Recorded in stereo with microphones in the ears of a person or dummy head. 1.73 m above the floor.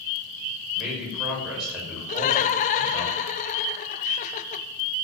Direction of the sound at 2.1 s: 40° left (ahead or behind).